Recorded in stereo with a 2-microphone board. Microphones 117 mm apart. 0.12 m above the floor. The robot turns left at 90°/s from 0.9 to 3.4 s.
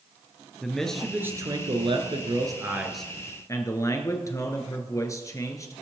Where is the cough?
I don't hear a cough.